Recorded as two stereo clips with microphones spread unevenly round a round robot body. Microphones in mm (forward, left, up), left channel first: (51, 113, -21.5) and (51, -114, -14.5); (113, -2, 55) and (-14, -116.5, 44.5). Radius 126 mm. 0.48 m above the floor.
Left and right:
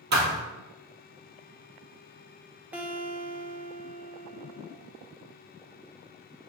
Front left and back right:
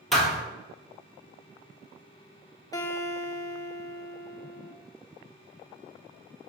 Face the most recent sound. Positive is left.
turn(degrees=-10)